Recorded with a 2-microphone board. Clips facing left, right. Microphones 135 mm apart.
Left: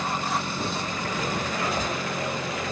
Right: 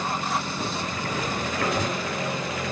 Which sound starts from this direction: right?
Writing, at 1.6 s.